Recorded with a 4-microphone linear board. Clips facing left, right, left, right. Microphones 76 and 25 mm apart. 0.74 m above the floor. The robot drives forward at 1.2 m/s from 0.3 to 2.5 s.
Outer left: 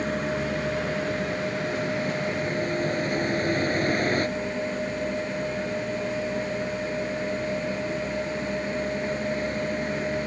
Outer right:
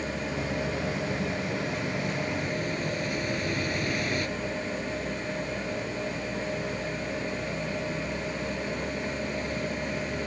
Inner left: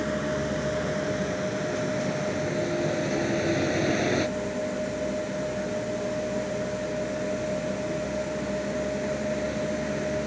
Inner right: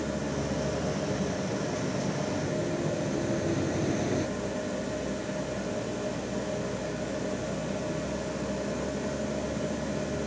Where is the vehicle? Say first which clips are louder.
Outer left 5 dB, inner left 4 dB; 55° left (ahead or behind); by 10.3 s 40° left (ahead or behind).